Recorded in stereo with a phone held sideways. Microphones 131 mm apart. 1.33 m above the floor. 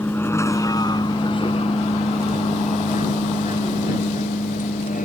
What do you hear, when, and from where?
0.0 s a vehicle: 15° left (ahead or behind); by 5.1 s 85° left